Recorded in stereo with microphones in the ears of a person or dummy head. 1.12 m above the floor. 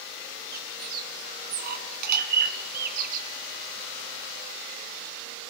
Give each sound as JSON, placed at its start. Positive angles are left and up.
{"t": 0.5, "sound": "a bird", "side_deg": -55, "distance_m": 2.5}